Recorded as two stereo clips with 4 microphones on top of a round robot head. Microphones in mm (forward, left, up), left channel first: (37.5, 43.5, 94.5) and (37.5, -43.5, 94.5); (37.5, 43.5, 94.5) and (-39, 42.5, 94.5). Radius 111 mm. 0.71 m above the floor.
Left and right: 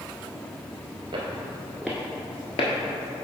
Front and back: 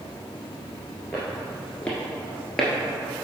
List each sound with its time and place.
1.1 s footsteps: 85° right, 0.9 m; by 3.2 s 90° left, 1.4 m